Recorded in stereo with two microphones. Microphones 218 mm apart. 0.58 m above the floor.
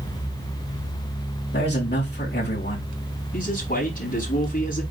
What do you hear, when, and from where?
1.5 s a man speaking: 50° left (ahead or behind), 4.5 m
3.3 s a man speaking: 40° left (ahead or behind), 4.5 m